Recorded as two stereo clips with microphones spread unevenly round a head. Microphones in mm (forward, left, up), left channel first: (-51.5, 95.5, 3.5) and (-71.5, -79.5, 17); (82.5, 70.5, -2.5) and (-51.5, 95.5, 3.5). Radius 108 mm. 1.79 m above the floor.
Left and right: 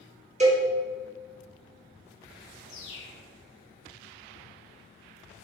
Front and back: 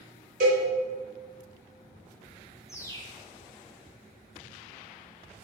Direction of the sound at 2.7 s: 60° left.